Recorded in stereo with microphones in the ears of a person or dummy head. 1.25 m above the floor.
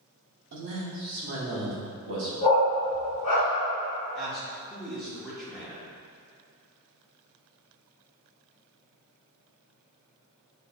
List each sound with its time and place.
0.5 s a man speaking: 55° right (ahead or behind), 0.6 m
2.4 s a dog barking: 25° left (ahead or behind), 1.5 m
4.2 s a man speaking: centre (ahead or behind), 0.7 m